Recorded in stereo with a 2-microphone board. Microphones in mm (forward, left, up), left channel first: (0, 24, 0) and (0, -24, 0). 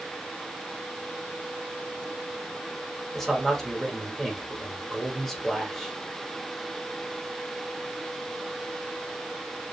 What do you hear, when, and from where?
3.1 s a man speaking: 5° left (ahead or behind), 0.9 m